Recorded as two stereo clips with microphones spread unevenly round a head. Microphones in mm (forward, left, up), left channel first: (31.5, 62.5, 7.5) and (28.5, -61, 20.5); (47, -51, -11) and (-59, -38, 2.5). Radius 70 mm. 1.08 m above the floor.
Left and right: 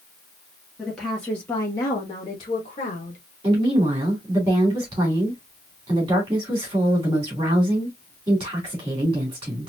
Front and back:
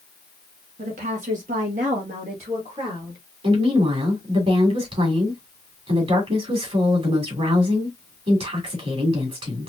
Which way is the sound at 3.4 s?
160° right.